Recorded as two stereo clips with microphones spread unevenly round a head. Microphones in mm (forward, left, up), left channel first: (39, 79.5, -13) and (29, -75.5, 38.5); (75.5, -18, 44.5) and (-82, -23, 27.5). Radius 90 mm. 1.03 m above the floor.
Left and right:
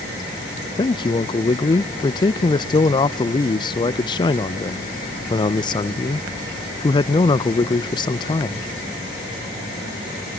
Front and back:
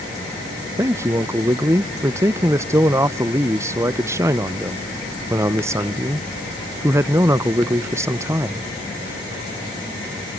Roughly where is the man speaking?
Behind left.